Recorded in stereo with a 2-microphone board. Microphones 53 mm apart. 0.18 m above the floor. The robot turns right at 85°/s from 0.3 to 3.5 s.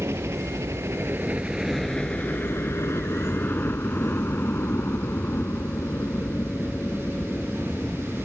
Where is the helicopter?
60° right (ahead or behind); by 8.2 s 25° left (ahead or behind).